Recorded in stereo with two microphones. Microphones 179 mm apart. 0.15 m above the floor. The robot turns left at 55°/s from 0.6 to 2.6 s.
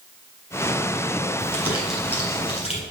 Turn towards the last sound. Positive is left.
turn(degrees=140)